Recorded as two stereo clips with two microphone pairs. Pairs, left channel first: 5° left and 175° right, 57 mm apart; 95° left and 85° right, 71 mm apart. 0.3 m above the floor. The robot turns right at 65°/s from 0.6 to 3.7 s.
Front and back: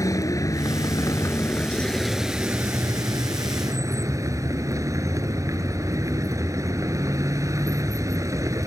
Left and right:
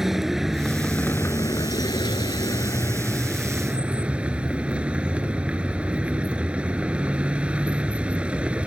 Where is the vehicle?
Straight ahead; by 8.7 s 160° right.